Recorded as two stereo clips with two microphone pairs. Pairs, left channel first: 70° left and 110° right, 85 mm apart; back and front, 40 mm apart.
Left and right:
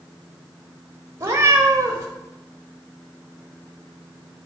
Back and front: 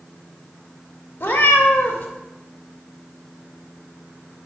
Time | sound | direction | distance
1.2 | a cat meowing | 165° right | 1.3 m